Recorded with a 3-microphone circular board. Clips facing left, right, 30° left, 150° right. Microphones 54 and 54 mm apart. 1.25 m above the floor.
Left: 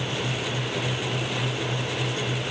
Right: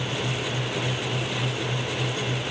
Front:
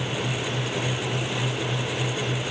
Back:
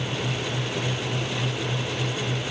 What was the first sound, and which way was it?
Only background noise.